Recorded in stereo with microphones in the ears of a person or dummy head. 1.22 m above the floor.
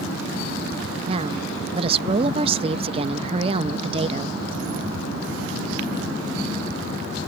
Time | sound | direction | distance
1.1 | a woman speaking | 35° right (ahead or behind) | ?